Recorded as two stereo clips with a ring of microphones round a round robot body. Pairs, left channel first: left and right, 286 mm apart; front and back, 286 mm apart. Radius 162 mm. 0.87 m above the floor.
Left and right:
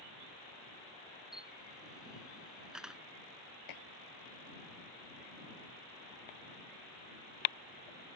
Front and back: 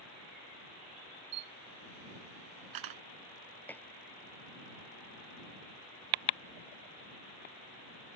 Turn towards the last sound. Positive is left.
turn(degrees=85)